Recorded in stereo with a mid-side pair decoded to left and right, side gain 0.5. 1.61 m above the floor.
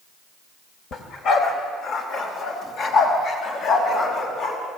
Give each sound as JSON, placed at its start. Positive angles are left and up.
{"t": 0.9, "sound": "a dog barking", "azimuth_deg": 60, "distance_m": 3.5}